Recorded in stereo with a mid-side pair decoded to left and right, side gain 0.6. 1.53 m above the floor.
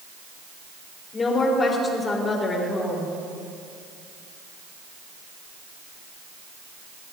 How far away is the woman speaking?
About 3 m.